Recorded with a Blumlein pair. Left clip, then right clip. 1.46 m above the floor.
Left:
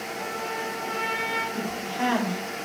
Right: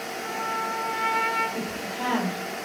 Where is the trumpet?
65° left, 4.5 m.